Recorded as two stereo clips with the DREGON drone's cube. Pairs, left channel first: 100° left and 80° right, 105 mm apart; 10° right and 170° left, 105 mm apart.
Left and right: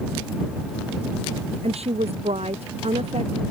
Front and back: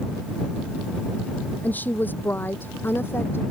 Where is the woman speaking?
85° right; by 3.4 s 80° right.